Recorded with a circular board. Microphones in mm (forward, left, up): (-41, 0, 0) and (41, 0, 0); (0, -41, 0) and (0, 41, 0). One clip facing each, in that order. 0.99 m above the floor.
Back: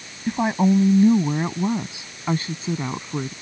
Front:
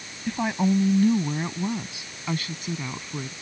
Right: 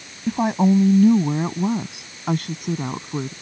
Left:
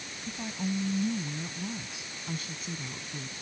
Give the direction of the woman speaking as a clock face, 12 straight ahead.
4 o'clock.